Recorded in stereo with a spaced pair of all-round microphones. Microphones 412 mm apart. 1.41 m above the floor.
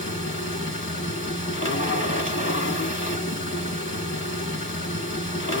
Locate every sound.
0.0 s a machine running: 30° left (ahead or behind), 1.4 m